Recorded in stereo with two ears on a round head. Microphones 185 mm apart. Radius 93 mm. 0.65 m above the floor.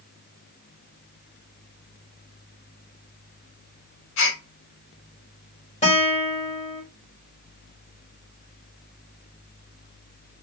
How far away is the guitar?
About 1.9 m.